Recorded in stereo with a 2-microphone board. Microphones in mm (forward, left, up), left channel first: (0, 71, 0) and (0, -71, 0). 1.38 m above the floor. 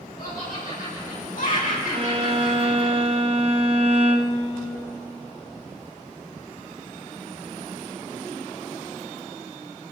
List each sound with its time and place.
0.2 s laughter: 80° left, 5 m; by 2.9 s 65° left (ahead or behind), 6 m
1.9 s a violin: 45° right (ahead or behind), 0.9 m